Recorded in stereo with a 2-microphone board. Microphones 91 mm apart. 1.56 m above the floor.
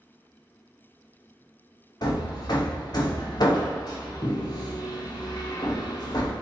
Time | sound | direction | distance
2.0 | hammering | 50° left (ahead or behind) | 0.6 m